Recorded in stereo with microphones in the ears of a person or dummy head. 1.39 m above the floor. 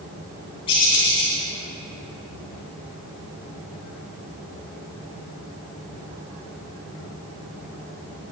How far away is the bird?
About 3.5 m.